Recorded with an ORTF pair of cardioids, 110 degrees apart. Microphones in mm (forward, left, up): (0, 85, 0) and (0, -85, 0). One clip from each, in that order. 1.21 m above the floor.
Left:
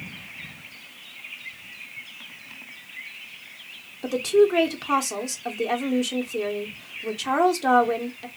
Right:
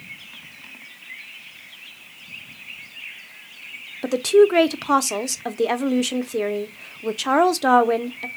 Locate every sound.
4.0 s a woman speaking: 25° right, 0.5 m